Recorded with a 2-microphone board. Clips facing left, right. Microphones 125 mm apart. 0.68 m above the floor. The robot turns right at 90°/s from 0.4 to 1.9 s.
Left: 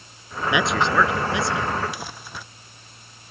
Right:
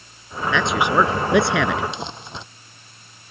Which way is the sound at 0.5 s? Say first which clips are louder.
Right 2 dB; 165° left.